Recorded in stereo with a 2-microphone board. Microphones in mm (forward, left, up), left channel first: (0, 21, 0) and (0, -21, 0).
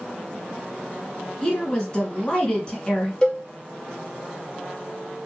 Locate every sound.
1.4 s a woman speaking: 20° left (ahead or behind), 1.7 m
3.2 s a cowbell: 20° left (ahead or behind), 1.5 m